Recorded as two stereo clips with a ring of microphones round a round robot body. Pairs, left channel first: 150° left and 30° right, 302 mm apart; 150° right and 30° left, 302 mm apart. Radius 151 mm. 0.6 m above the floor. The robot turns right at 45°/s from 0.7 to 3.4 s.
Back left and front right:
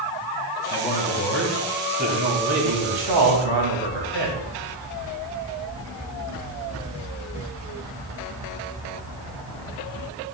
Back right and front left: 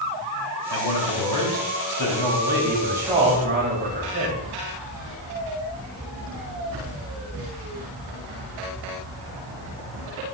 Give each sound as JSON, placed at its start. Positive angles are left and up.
{"t": 0.7, "sound": "a man speaking", "azimuth_deg": -155, "distance_m": 3.5}